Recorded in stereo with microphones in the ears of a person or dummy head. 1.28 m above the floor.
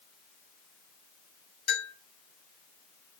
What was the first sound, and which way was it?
A bell, 85° left.